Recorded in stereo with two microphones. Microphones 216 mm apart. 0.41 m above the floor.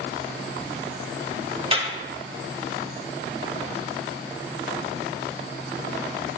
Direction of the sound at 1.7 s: 25° right (ahead or behind).